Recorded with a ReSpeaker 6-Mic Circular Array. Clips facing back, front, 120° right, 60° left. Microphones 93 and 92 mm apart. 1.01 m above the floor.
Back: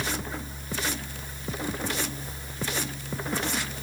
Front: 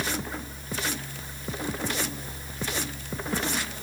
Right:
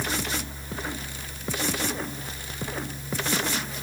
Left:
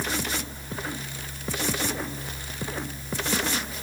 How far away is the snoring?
I don't hear snoring.